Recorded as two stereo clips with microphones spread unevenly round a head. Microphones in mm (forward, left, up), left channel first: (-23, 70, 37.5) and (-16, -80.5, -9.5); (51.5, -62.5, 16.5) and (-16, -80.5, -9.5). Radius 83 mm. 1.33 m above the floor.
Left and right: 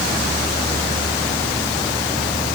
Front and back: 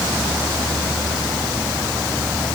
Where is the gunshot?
I don't hear a gunshot.